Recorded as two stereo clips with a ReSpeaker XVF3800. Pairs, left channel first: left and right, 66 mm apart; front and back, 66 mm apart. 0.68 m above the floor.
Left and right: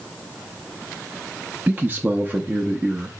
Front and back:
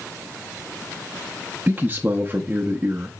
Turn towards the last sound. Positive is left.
turn(degrees=-130)